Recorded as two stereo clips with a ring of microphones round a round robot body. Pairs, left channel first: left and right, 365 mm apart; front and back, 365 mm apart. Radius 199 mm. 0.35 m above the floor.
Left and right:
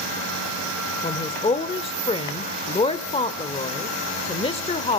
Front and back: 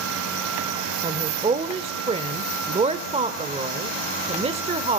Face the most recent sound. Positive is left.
turn(degrees=135)